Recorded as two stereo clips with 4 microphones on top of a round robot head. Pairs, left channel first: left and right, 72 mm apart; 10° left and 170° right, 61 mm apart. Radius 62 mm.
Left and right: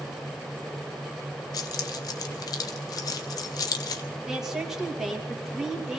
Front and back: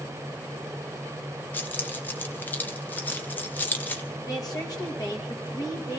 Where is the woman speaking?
5° right, 2.5 m.